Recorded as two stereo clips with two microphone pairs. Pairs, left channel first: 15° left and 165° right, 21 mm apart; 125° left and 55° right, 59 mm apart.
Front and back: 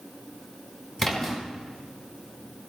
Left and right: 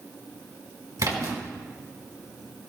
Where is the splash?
60° right, 3.5 m.